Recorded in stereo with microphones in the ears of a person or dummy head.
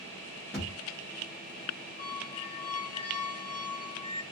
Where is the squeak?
30° left (ahead or behind), 0.8 m.